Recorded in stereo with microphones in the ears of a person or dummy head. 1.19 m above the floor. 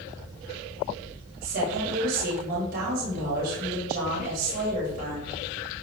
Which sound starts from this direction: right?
A woman speaking, at 1.4 s.